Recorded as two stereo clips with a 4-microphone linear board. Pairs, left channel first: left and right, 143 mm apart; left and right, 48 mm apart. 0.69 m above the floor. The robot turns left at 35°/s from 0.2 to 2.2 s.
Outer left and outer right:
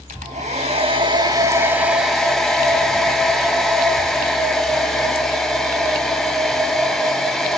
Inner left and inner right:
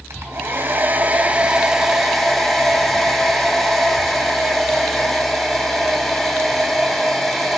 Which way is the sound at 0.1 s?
115° right.